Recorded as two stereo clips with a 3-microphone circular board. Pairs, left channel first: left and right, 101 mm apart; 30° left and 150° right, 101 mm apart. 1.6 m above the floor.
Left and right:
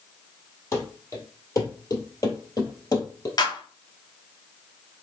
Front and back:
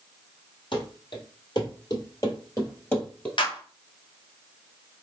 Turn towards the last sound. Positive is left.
turn(degrees=50)